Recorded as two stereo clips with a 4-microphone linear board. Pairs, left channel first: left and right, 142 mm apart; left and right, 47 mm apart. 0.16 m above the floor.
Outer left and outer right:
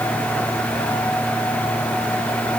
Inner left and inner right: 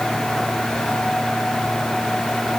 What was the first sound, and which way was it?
Only background noise.